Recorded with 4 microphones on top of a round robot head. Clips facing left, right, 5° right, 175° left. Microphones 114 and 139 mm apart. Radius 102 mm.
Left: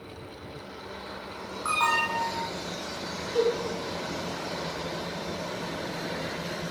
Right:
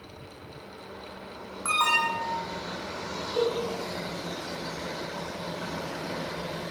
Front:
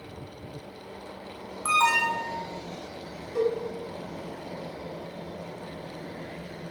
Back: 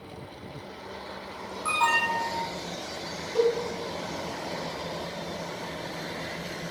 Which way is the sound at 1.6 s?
15° right.